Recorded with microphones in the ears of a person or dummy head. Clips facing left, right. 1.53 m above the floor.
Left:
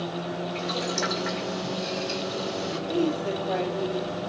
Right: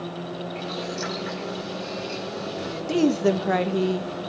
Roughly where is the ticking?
I don't hear ticking.